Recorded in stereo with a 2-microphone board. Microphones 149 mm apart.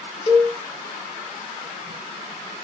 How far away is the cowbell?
About 0.6 m.